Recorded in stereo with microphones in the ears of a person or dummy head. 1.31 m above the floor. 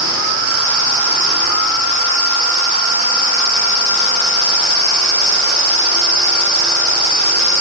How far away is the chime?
No chime in this recording.